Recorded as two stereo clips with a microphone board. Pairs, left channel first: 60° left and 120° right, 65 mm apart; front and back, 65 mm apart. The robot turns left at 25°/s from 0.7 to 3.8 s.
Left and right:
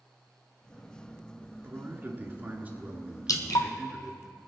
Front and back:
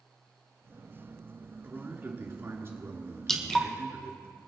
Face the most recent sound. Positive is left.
turn(degrees=70)